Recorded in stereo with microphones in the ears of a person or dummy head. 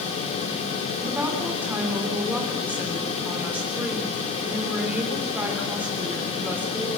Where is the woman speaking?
5° right (ahead or behind), 4.5 m.